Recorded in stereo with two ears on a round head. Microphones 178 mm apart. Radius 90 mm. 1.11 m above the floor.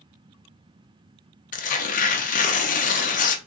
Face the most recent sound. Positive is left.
turn(degrees=40)  # may be behind; listen again after turning